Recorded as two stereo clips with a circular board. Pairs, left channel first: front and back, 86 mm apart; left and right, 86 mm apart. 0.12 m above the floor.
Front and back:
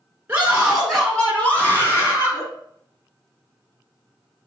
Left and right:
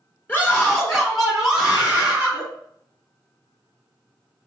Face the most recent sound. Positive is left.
turn(degrees=-30)